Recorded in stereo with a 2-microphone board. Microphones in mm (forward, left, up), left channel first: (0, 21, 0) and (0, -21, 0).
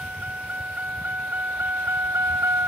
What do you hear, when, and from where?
0.0 s a vehicle: 35° right (ahead or behind); by 2.7 s 65° right (ahead or behind)